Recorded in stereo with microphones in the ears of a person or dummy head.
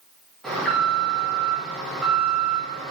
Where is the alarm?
5° left (ahead or behind), 3.5 m.